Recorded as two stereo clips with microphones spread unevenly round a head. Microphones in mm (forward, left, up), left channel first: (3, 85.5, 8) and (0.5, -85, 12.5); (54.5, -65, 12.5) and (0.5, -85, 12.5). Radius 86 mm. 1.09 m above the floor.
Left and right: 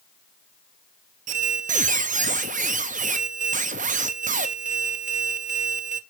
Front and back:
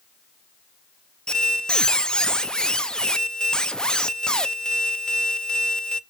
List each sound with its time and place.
1.3 s a squeak: 55° right, 0.6 m